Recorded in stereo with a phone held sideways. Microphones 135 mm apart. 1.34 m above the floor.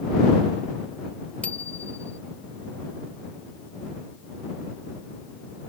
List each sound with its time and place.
1.4 s a bicycle bell: 10° left (ahead or behind)